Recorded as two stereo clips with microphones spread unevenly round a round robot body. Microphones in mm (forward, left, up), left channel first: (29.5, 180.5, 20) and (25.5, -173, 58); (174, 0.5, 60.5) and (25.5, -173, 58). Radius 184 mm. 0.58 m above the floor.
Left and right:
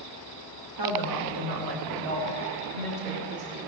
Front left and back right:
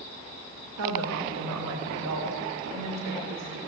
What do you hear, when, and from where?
0.8 s a woman speaking: 130° right, 2.5 m; by 3.6 s 135° right, 5.5 m